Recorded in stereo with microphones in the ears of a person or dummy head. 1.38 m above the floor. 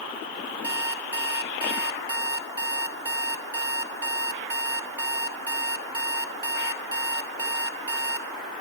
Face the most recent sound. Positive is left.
turn(degrees=-25)  # may be behind; listen again after turning